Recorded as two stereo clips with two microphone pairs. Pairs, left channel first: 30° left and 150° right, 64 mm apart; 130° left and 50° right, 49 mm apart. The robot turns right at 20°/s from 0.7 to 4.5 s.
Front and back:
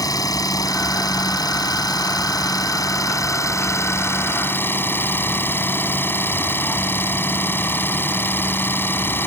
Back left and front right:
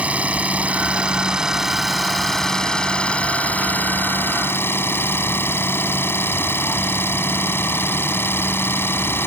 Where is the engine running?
10° left; by 9.3 s 85° left.